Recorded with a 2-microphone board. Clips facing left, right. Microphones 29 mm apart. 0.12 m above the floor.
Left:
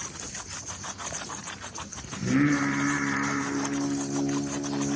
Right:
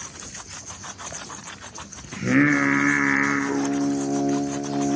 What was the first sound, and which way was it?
Singing, 50° right (ahead or behind).